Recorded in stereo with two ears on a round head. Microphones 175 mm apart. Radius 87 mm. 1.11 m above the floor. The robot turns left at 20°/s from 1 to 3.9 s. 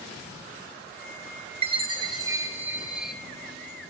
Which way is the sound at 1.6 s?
150° right.